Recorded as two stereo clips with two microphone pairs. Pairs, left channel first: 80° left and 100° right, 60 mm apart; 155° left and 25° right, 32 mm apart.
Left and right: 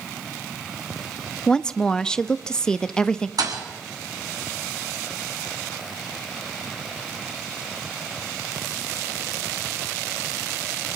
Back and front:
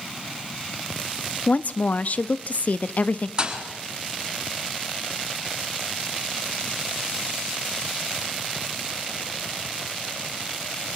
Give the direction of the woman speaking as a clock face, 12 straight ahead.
7 o'clock.